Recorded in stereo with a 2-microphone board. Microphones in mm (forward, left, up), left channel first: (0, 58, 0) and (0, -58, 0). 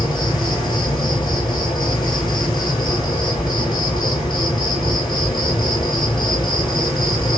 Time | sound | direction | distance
0.0 | an insect | 40° left (ahead or behind) | 1.6 m